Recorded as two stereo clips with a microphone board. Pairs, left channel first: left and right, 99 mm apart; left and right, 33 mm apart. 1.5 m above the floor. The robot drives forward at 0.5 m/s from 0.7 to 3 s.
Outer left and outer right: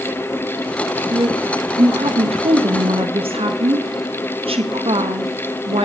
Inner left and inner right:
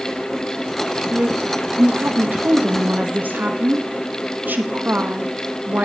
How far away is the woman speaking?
About 1.0 m.